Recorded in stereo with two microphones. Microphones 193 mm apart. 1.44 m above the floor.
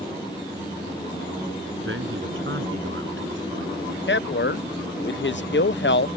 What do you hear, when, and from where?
1.9 s a man speaking: 85° right
4.1 s a man speaking: 70° left (ahead or behind)